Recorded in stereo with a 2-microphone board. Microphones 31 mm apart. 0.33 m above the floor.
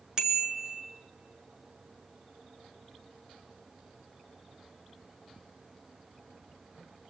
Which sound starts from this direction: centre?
A bicycle bell, at 0.2 s.